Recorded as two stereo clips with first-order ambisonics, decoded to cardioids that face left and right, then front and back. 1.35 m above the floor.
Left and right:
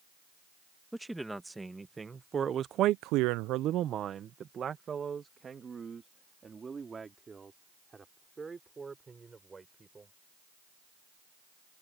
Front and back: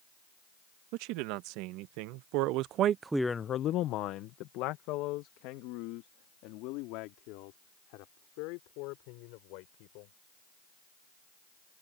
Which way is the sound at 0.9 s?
Straight behind.